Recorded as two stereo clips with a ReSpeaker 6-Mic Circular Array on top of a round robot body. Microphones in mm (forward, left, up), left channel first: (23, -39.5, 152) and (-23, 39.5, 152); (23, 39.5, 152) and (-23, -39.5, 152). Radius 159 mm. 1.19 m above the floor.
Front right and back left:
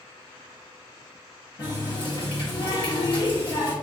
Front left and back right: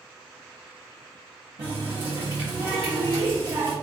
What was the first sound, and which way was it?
A running tap, 90° right.